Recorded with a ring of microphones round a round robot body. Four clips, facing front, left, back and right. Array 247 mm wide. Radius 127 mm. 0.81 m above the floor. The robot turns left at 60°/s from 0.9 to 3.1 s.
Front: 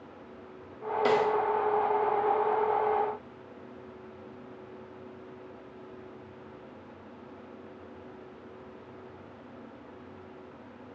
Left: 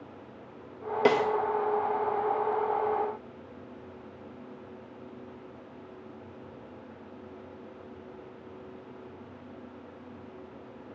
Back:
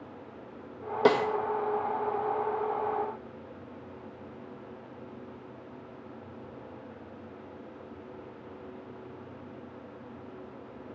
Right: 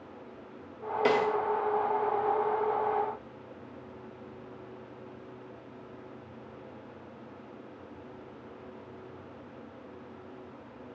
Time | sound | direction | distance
1.1 | a snare drum | 150° left | 1.4 m